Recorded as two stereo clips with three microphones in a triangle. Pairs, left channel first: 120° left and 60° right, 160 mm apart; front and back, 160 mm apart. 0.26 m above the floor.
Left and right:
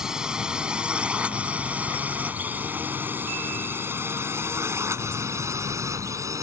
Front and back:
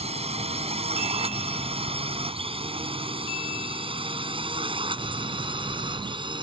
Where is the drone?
145° right; by 6.4 s 125° right.